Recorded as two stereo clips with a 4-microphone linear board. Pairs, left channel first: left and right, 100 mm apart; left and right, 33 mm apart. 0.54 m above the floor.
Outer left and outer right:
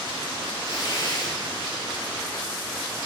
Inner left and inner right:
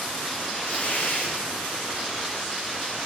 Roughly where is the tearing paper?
Left.